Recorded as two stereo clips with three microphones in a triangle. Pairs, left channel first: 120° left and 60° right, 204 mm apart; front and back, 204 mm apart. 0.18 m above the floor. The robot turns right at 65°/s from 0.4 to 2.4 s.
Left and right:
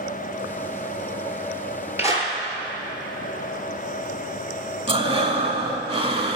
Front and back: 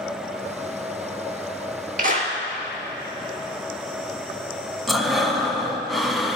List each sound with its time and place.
2.0 s a clap: 140° right, 2.5 m; by 2.3 s 115° right, 2.5 m
4.9 s breathing: 90° right, 1.4 m